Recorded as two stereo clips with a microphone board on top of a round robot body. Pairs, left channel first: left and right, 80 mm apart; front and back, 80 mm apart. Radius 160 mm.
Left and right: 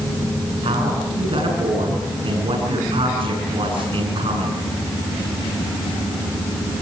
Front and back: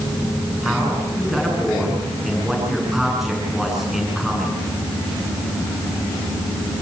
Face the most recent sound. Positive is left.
turn(degrees=-95)